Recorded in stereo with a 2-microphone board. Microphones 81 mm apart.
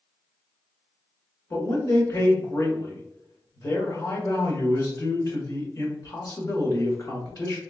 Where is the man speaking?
50° left (ahead or behind), 1.8 m.